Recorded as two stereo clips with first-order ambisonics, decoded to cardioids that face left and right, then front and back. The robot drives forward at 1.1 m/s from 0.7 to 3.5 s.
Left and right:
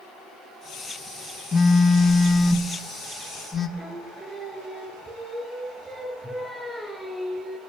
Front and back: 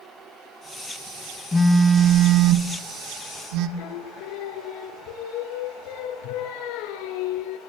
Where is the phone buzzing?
55° left, 1.0 m; by 3.7 s 170° left, 2 m.